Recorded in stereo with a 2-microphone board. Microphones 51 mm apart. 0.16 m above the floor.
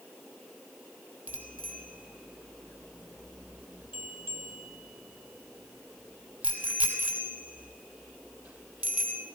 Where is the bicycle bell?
35° right (ahead or behind), 3.5 m.